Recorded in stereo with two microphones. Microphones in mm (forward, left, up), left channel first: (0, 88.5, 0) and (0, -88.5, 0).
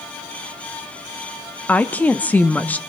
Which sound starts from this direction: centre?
A woman speaking, at 1.7 s.